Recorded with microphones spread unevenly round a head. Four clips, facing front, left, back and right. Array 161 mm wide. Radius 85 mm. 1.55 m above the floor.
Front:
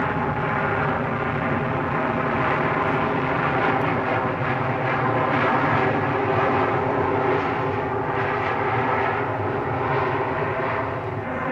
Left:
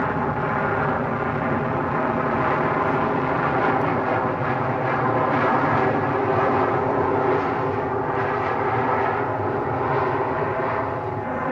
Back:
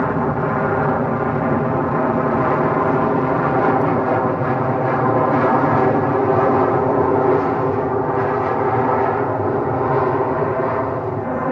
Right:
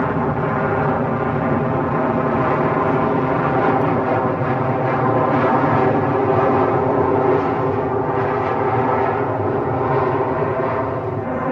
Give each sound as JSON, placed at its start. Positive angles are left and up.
{"t": 0.0, "sound": "an aircraft", "azimuth_deg": -145}